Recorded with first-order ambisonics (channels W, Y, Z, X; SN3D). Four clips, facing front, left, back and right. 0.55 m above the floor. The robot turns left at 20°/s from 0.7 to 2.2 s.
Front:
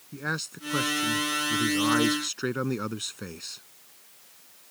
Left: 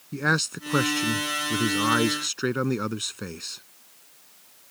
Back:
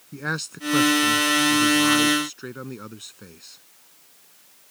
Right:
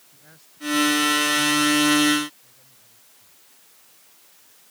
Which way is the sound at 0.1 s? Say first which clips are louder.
Left 29 dB, back 3 dB; 100° left.